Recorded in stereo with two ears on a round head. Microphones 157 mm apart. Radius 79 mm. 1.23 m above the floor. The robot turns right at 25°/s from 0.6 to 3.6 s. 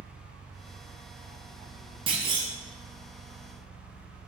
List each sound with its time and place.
0.0 s an engine running: 85° right, 1.9 m; by 4.3 s 10° right, 1.9 m
2.1 s a clunk: 25° right (ahead or behind), 0.6 m